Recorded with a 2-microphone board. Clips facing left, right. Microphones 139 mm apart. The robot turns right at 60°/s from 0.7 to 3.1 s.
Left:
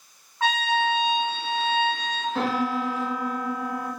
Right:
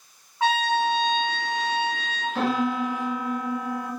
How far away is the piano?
About 1.8 m.